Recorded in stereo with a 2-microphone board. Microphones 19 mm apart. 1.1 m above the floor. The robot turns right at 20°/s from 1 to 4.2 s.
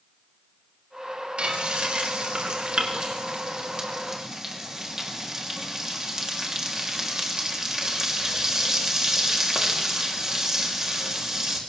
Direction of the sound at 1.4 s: 85° right.